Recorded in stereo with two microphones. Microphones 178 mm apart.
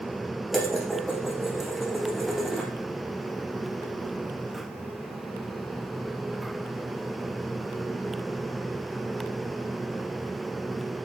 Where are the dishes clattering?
Centre (ahead or behind), 4.5 m.